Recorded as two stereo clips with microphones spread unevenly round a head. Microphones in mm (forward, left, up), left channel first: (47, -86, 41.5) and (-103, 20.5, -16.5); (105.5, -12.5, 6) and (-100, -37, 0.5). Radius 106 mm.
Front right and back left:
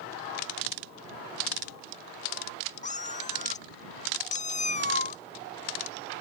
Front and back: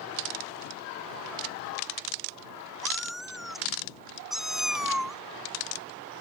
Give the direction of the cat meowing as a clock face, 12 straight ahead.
3 o'clock.